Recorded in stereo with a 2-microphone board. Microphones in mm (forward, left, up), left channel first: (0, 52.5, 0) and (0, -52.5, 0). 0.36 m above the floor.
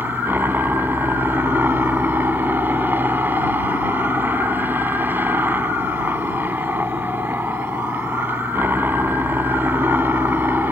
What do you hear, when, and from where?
0.0 s a helicopter: 20° right (ahead or behind)